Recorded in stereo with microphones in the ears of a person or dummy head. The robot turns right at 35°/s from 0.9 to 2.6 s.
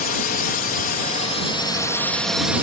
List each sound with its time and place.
0.0 s a drone: 130° left; by 2.6 s 170° right